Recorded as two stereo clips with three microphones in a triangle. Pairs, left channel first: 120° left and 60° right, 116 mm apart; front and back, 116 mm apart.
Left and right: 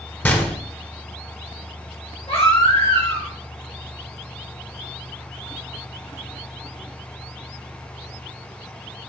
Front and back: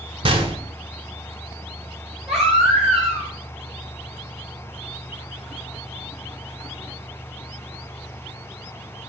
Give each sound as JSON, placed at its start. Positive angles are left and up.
{"t": 0.2, "sound": "a gunshot", "azimuth_deg": -170, "distance_m": 0.7}
{"t": 2.3, "sound": "a baby crying", "azimuth_deg": 95, "distance_m": 2.5}